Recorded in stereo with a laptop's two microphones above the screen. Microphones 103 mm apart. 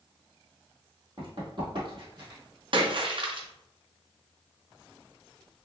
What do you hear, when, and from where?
1.2 s running footsteps: 45° right (ahead or behind), 1.4 m; by 2.4 s 50° right (ahead or behind), 1.6 m
2.7 s a splash: 55° right (ahead or behind), 0.6 m